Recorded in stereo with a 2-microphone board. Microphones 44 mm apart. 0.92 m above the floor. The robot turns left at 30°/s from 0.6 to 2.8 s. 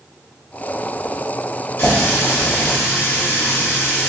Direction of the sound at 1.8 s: 110° left.